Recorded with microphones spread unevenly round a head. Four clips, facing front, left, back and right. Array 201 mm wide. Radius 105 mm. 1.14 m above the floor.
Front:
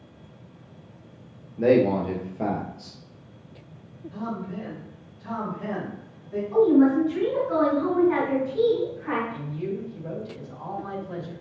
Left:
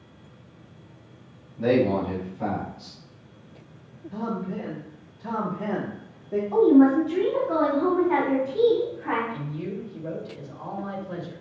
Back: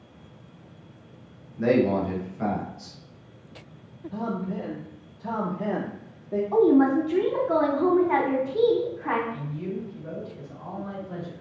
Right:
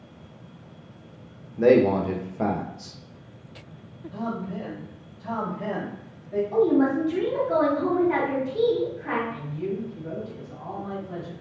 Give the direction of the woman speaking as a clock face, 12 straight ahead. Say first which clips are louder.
Left 5 dB, front 1 dB; 6 o'clock.